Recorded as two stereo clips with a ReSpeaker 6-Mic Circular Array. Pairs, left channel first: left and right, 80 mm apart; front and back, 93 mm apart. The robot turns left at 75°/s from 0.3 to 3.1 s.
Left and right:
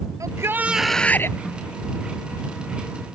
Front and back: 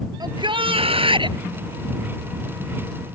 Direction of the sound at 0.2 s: 135° right.